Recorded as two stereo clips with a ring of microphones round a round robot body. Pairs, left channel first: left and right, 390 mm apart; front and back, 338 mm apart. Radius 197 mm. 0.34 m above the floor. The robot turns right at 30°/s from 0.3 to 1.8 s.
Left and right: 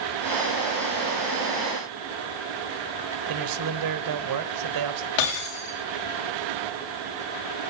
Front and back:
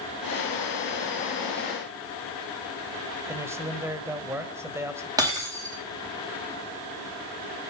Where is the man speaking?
100° right, 1.4 m.